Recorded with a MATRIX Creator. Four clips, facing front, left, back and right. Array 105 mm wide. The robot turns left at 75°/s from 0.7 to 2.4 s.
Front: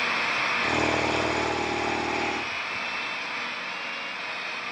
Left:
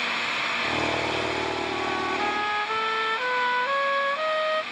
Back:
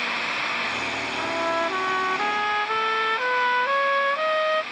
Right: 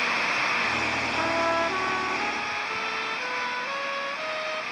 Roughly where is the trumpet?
Behind right.